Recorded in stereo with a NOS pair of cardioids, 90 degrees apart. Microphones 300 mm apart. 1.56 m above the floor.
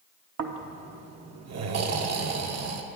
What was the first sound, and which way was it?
Snoring, 60° right.